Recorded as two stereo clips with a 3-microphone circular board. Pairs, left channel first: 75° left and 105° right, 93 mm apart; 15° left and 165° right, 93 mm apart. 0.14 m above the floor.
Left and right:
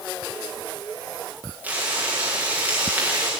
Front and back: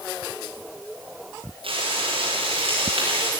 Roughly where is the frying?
Behind.